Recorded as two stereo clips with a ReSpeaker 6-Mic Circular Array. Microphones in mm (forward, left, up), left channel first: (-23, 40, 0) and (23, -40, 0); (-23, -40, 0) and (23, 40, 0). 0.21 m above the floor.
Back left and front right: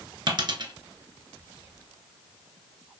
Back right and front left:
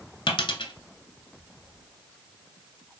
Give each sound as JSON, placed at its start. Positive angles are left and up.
{"t": 0.3, "sound": "a dropped coin", "azimuth_deg": -100, "distance_m": 0.6}